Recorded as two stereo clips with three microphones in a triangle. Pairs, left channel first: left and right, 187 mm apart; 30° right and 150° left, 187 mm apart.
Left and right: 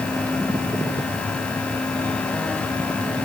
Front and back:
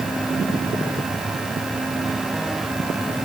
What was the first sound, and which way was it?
Only background noise.